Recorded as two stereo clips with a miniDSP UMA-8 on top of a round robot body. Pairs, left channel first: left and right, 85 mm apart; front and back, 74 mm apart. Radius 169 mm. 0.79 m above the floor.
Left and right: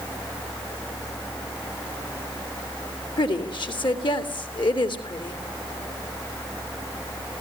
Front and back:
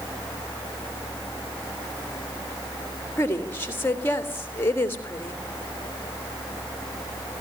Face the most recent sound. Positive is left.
turn(degrees=60)